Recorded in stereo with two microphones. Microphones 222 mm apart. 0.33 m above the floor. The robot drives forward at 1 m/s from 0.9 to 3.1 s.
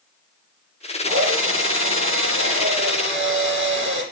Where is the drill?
75° right (ahead or behind), 5.5 m; by 4.0 s 60° right (ahead or behind), 6 m.